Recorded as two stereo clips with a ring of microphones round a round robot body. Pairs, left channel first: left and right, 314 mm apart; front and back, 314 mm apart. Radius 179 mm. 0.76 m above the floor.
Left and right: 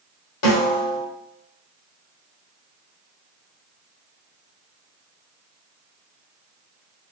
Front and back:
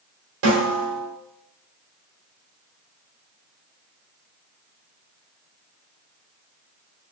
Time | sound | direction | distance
0.4 | a snare drum | 125° left | 1.3 m